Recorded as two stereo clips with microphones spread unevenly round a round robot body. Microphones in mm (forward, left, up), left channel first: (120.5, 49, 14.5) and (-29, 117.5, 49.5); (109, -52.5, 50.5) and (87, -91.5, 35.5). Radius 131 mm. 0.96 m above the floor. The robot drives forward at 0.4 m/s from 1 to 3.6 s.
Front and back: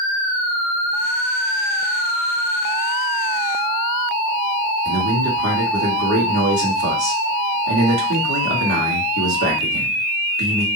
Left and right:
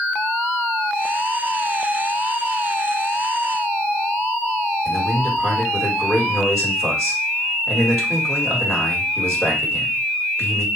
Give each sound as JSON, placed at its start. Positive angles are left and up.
{"t": 4.8, "sound": "a man speaking", "azimuth_deg": 155, "distance_m": 1.9}